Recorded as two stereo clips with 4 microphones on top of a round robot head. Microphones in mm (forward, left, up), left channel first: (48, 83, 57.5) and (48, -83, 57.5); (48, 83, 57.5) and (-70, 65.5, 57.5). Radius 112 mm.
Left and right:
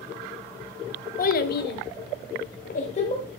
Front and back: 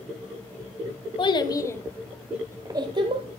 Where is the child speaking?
55° left, 1.3 m; by 3.3 s 150° left, 1.3 m.